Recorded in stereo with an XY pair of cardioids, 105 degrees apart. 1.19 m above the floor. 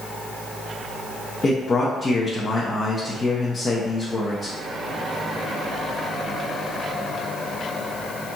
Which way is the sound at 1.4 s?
35° left.